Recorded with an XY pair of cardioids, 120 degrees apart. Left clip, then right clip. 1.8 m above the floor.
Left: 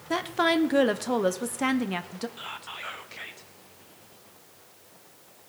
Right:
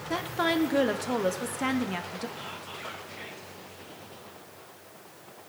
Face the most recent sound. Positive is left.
turn(degrees=30)